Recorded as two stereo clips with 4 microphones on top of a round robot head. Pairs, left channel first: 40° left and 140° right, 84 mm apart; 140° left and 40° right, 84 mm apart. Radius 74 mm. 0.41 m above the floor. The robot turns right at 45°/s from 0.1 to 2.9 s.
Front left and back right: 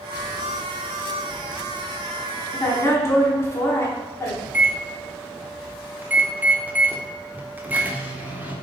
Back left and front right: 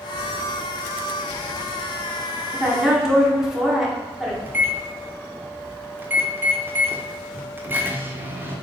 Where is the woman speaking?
25° left, 1.1 m; by 4.3 s 45° left, 1.1 m.